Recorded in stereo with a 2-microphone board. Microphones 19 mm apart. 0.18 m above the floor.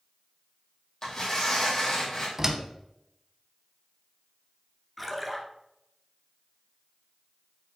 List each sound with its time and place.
1.0 s tearing paper: 45° left (ahead or behind), 3.5 m
2.4 s a door slam: 25° right (ahead or behind), 0.8 m
5.0 s a splash: centre (ahead or behind), 1.3 m